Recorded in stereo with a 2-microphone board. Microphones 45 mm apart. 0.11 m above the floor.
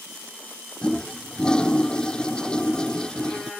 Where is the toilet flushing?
15° left (ahead or behind).